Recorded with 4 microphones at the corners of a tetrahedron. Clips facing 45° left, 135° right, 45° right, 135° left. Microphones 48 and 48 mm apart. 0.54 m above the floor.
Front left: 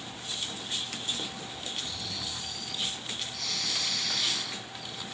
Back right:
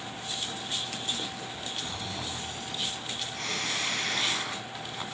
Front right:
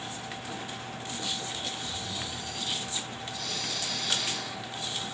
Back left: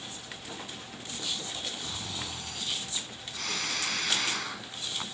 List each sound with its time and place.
1.8 s snoring: 170° left, 1.7 m